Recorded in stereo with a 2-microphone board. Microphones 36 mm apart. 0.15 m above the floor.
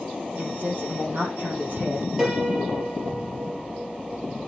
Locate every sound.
0.4 s a woman speaking: 50° right (ahead or behind), 5 m
2.2 s a piano: 15° right (ahead or behind), 3.5 m